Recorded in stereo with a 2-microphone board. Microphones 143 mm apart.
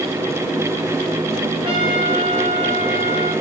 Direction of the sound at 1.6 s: 40° right (ahead or behind).